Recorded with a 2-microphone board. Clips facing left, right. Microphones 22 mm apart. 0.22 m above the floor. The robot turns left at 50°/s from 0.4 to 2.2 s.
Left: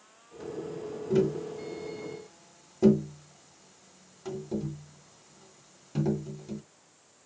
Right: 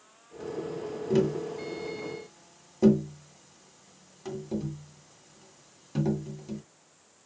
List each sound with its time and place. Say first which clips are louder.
1.1 s tapping: even; 45° right (ahead or behind), 2.0 m; by 6.6 s 15° right (ahead or behind), 2.0 m